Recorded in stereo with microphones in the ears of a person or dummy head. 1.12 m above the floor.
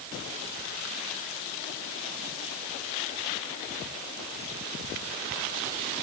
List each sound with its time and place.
Only background noise.